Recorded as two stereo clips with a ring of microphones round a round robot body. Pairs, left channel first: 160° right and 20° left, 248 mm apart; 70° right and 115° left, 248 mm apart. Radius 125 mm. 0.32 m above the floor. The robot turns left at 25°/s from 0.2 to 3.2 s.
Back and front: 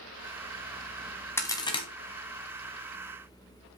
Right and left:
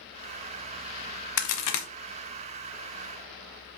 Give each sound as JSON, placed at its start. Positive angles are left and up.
{"t": 1.4, "sound": "a crack", "azimuth_deg": -75, "distance_m": 0.9}